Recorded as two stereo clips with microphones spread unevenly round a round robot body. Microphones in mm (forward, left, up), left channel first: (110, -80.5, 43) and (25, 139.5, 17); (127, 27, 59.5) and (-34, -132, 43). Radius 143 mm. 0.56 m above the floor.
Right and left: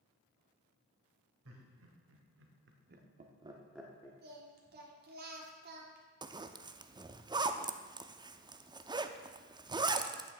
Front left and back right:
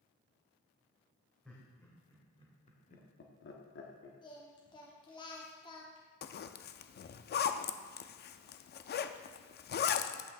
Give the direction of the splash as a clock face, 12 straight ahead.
No splash in this recording.